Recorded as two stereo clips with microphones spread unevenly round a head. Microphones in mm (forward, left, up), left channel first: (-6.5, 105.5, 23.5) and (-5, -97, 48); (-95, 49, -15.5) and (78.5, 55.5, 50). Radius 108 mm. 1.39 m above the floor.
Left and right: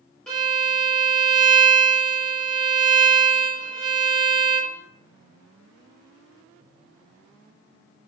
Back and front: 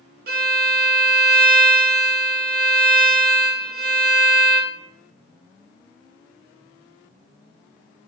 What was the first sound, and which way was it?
A violin, straight ahead.